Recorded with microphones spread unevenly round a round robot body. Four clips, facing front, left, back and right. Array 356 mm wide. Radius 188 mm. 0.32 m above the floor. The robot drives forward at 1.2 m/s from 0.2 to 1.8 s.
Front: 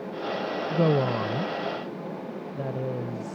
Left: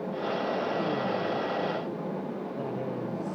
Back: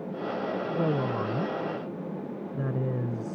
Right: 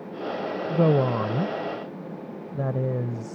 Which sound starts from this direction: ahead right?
A woman speaking, at 0.7 s.